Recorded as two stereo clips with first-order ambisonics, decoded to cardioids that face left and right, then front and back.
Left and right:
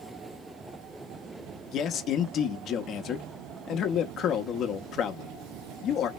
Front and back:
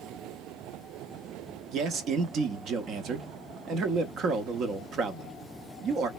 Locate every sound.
1.7 s a man speaking: 135° left, 0.7 m